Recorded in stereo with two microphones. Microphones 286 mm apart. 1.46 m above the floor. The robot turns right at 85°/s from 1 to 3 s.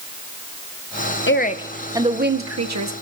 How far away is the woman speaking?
About 0.9 m.